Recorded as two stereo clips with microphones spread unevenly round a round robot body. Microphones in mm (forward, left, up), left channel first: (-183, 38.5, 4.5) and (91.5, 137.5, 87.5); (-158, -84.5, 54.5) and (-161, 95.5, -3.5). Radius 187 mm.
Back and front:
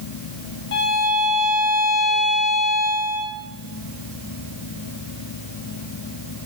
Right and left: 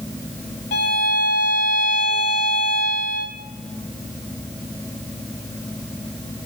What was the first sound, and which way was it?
A violin, 110° right.